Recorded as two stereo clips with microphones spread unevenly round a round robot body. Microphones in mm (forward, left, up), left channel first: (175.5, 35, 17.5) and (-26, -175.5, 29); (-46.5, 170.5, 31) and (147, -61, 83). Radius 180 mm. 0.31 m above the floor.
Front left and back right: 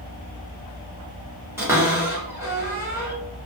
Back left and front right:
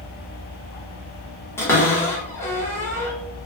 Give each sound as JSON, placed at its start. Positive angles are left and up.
{"t": 1.6, "sound": "a cupboard door", "azimuth_deg": 155, "distance_m": 1.1}